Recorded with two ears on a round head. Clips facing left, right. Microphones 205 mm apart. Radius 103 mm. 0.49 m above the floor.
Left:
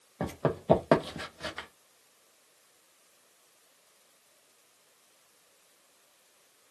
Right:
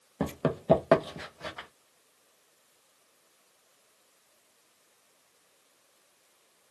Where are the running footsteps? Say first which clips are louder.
Right 1 dB; 35° right (ahead or behind), 0.7 m; by 1.7 s 25° left (ahead or behind), 1.0 m.